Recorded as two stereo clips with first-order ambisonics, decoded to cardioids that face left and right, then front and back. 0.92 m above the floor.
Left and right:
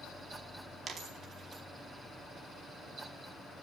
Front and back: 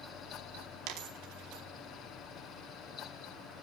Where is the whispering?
No whispering in this recording.